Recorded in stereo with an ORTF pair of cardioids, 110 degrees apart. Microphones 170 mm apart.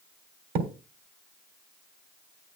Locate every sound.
0.6 s a thud: 70° right, 3 m